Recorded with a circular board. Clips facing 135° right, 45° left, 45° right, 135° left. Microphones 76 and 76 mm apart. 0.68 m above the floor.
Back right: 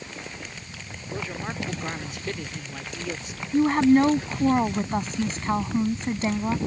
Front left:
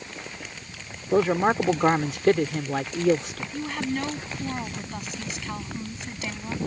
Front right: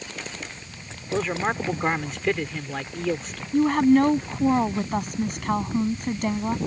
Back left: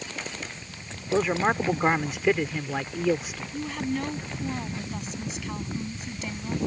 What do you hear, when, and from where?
1.1 s a man speaking: 50° left
3.5 s a woman speaking: 85° right